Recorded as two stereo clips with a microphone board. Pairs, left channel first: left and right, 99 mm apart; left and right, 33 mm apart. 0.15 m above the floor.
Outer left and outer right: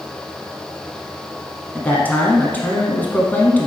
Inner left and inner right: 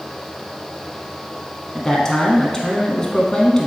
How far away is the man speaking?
About 1.1 m.